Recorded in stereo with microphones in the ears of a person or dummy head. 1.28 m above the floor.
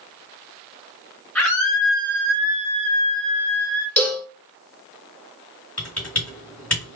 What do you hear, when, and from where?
1.4 s a scream: centre (ahead or behind), 1.4 m; by 3.9 s 40° left (ahead or behind), 0.6 m
4.0 s a cowbell: 5° left (ahead or behind), 1.1 m
5.8 s typing on a keyboard: 10° left (ahead or behind), 1.5 m